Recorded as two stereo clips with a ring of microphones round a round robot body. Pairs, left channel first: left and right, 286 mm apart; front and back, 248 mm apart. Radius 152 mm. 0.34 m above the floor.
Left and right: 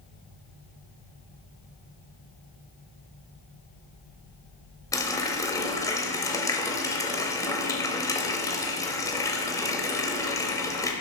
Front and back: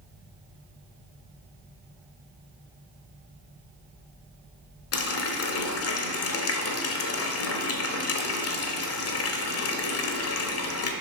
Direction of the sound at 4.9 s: 10° left.